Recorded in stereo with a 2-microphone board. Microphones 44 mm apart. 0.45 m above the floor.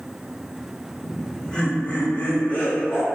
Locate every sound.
1.0 s laughter: 10° left (ahead or behind), 1.0 m; by 3.0 s 40° left (ahead or behind), 1.4 m